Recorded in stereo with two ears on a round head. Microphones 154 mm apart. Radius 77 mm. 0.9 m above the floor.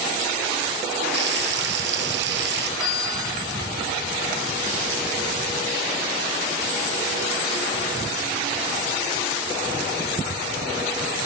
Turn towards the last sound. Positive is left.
turn(degrees=85)